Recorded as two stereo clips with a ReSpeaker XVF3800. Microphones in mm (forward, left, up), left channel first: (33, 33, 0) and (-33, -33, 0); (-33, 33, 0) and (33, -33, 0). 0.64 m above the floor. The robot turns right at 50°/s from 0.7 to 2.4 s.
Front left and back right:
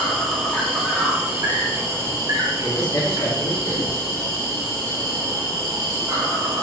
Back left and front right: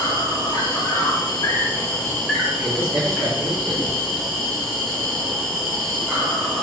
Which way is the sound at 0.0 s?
140° left.